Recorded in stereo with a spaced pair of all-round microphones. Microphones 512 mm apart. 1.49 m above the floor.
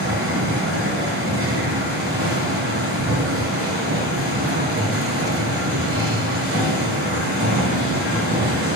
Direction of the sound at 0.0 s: 25° right (ahead or behind).